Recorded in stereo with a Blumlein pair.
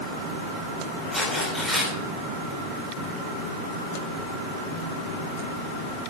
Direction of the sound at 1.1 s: Straight ahead.